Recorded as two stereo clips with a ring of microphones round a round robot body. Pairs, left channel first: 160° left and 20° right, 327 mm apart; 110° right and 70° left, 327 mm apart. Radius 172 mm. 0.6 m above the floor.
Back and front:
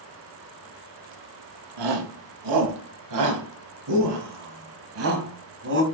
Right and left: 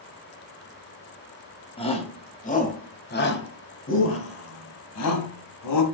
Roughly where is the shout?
Ahead right.